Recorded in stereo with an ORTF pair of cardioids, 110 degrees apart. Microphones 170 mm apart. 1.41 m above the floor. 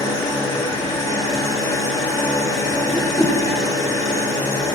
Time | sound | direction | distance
0.0 | an engine running | 20° left | 2.5 m
2.9 | a whoosh | straight ahead | 1.2 m